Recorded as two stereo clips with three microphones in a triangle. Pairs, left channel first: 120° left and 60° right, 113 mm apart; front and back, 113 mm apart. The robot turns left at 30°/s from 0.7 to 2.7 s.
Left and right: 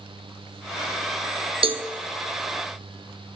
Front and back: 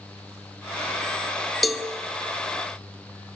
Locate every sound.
1.6 s a cowbell: 90° right, 0.6 m; by 1.9 s 95° right, 0.6 m